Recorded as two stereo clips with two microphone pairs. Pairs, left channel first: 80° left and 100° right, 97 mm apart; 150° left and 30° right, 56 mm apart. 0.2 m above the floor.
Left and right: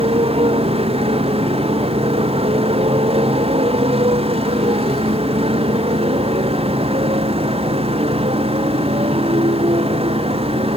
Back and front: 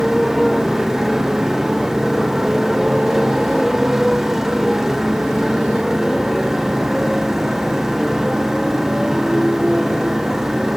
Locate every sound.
0.0 s a motorcycle: 110° right